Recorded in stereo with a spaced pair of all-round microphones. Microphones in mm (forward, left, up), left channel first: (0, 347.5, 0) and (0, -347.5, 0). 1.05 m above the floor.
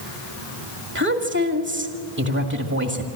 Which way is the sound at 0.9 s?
25° right (ahead or behind).